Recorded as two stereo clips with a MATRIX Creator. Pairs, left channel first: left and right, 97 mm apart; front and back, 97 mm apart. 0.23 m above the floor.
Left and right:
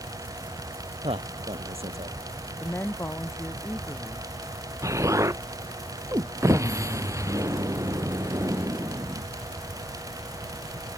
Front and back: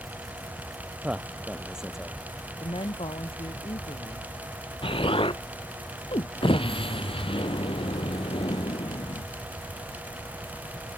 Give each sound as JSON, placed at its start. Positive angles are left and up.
{"t": 1.0, "sound": "a man speaking", "azimuth_deg": -105}
{"t": 2.6, "sound": "a woman speaking", "azimuth_deg": 25}
{"t": 4.8, "sound": "an explosion", "azimuth_deg": -30}